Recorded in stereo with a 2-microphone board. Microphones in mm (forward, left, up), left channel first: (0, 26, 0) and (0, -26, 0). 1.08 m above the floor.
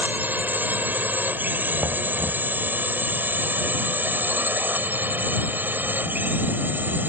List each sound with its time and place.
0.0 s a drone: 35° right (ahead or behind)
1.8 s knocking: 75° right (ahead or behind)